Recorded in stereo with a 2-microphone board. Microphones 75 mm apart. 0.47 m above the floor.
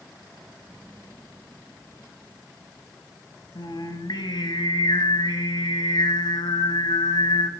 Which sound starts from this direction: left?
Singing, at 3.5 s.